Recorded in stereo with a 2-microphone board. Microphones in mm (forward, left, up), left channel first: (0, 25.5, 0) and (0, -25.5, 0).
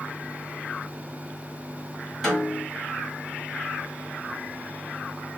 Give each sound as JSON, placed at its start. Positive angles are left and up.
{"t": 2.2, "sound": "a snare drum", "side_deg": 5, "distance_m": 1.8}